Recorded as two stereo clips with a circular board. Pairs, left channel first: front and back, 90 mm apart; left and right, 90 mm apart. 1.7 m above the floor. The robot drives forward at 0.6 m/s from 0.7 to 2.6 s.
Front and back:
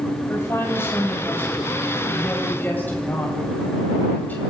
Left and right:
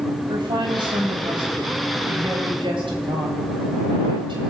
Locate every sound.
0.3 s a woman speaking: 60° right, 9 m; by 4.4 s 70° right, 8.5 m